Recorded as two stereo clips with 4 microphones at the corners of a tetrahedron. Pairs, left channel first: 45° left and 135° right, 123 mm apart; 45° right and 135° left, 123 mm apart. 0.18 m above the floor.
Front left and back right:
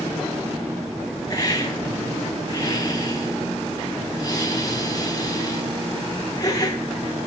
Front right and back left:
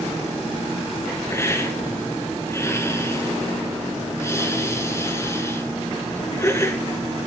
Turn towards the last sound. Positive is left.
turn(degrees=5)